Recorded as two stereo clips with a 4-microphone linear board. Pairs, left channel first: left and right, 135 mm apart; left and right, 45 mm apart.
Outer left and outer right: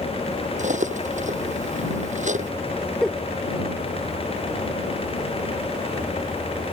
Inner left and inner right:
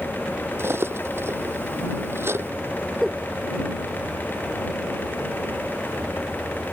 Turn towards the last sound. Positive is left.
turn(degrees=5)  # may be behind; listen again after turning